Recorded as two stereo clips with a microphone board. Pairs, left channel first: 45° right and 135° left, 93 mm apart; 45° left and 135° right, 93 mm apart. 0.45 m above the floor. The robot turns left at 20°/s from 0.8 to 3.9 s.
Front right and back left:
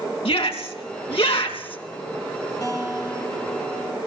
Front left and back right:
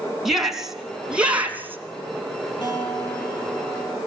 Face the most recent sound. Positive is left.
turn(degrees=-20)